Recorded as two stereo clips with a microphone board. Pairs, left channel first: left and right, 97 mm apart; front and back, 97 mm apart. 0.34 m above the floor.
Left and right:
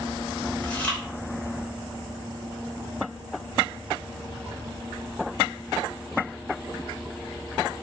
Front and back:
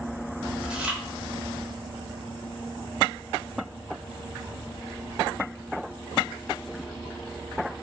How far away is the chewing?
About 0.8 m.